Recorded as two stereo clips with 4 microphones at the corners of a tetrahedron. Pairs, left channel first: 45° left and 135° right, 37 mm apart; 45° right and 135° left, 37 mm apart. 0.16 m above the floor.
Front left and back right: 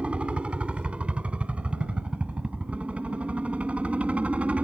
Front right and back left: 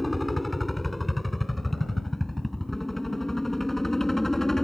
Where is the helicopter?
135° right; by 4.6 s 115° right.